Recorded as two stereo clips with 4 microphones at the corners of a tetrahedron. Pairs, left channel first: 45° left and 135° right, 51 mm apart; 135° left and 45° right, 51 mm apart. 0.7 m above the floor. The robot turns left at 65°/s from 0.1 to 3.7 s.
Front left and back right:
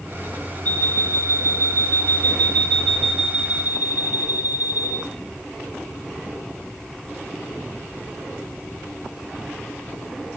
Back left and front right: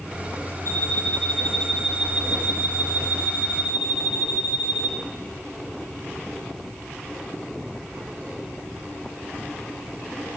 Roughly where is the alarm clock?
Left.